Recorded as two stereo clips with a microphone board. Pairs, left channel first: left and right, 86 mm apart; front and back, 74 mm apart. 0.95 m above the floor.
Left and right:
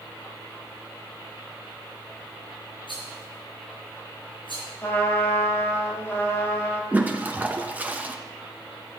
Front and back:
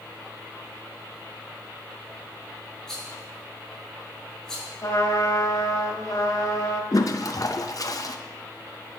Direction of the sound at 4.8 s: 30° left.